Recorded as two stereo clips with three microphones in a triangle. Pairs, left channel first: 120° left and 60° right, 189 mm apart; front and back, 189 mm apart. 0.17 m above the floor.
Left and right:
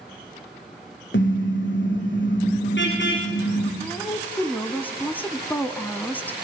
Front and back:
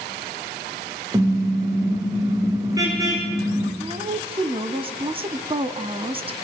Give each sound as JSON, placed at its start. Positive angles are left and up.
{"t": 1.1, "sound": "a car horn", "azimuth_deg": 110, "distance_m": 5.5}
{"t": 3.8, "sound": "a woman speaking", "azimuth_deg": -170, "distance_m": 1.1}